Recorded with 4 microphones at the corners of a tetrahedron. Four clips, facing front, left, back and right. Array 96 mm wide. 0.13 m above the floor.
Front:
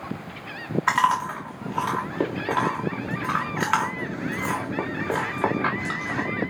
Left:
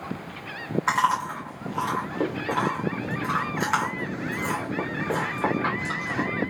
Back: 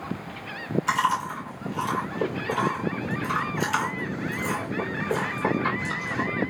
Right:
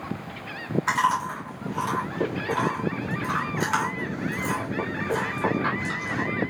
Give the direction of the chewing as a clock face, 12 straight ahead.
11 o'clock.